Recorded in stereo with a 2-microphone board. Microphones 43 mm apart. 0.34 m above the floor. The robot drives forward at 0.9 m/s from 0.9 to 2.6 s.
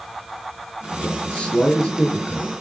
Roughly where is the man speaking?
Left.